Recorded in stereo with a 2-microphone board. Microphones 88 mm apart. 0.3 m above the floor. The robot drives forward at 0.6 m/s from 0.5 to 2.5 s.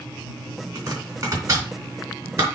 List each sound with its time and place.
0.8 s chopping: 45° right (ahead or behind), 3 m; by 2.5 s 35° right (ahead or behind), 3.5 m